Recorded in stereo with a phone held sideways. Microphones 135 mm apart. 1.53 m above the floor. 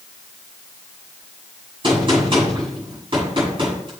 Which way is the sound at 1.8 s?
40° right (ahead or behind).